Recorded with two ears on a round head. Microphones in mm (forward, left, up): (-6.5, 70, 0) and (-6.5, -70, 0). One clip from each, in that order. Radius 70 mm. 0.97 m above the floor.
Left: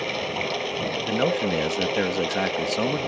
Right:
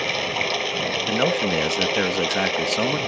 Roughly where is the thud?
I don't hear a thud.